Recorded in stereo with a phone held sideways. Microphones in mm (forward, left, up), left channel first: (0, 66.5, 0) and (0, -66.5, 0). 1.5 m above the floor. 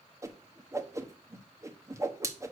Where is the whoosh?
25° right (ahead or behind), 1.0 m.